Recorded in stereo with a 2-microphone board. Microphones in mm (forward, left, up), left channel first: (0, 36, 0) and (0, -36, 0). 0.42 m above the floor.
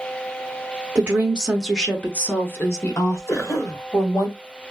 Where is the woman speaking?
25° right (ahead or behind), 0.8 m; by 4.3 s 55° left (ahead or behind), 1.9 m.